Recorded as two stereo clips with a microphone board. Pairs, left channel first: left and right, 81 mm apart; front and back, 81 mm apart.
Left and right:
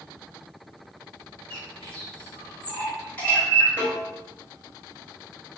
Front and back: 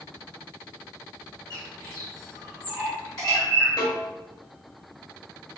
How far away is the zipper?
No zipper in this recording.